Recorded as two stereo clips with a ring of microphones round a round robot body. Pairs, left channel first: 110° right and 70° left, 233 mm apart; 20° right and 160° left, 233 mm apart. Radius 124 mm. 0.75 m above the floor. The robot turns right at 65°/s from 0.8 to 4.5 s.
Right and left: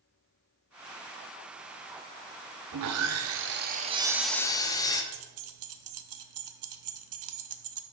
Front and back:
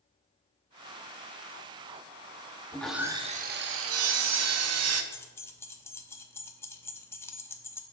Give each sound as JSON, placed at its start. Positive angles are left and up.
{"t": 2.7, "sound": "sawing", "azimuth_deg": 55, "distance_m": 0.7}
{"t": 5.1, "sound": "keys jangling", "azimuth_deg": 55, "distance_m": 0.7}